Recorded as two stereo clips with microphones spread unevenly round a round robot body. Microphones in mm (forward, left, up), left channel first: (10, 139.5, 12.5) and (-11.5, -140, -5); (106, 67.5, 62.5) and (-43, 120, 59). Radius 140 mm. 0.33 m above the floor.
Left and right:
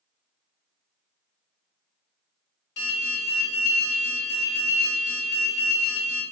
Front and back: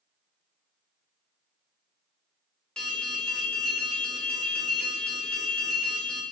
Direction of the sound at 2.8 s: 65° left.